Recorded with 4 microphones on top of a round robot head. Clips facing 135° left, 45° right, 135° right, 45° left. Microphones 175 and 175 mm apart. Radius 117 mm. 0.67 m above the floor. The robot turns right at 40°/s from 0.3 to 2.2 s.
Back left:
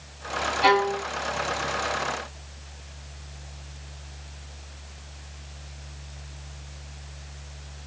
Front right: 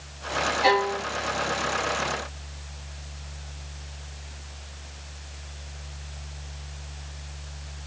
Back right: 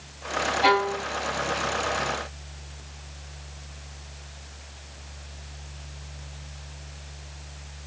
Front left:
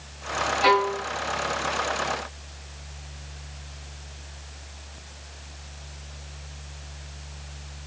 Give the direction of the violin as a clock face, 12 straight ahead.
7 o'clock.